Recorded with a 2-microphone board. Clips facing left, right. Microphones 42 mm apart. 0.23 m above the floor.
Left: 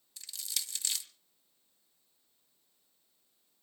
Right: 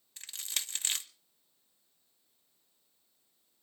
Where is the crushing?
45° right (ahead or behind), 0.6 m.